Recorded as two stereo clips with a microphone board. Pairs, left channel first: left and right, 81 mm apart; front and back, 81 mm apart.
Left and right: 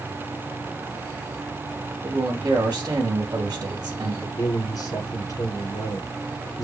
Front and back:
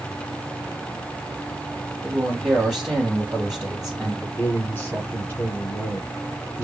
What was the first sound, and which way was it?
A man speaking, 90° right.